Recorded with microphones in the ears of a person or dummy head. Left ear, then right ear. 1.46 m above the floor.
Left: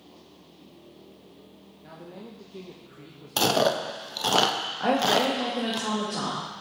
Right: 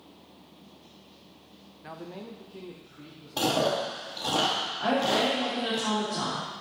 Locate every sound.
1.8 s a man speaking: 40° right (ahead or behind), 0.6 m; by 4.1 s 60° left (ahead or behind), 1.4 m
3.4 s chewing: 65° left (ahead or behind), 0.8 m
4.8 s a woman speaking: 55° left (ahead or behind), 2 m